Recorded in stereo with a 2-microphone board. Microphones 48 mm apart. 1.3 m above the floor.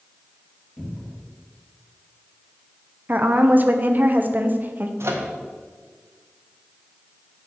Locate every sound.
0.8 s a cupboard door: 5° right (ahead or behind), 2 m
3.1 s a woman speaking: 40° right (ahead or behind), 0.6 m
5.0 s a microwave: 70° right (ahead or behind), 0.8 m